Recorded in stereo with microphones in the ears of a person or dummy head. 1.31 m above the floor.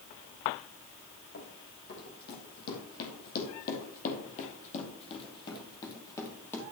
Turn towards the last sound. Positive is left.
turn(degrees=10)  # may be behind; listen again after turning